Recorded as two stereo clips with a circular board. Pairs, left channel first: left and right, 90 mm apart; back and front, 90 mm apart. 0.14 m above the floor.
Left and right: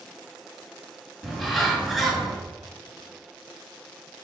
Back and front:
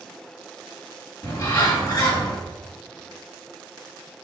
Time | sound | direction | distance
1.2 | a bird | 175° right | 1.9 m